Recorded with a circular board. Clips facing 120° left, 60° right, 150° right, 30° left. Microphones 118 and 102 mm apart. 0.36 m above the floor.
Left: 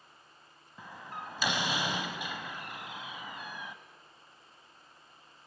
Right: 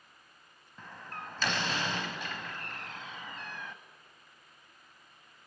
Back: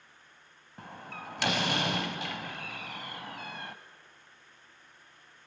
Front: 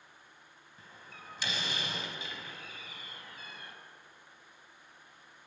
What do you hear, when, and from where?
0.8 s a door slam: 160° right, 1.4 m